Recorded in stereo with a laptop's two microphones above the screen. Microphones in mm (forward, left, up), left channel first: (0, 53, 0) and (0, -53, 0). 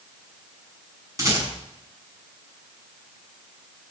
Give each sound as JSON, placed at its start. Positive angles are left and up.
{"t": 1.2, "sound": "a rattle", "side_deg": -30, "distance_m": 6.0}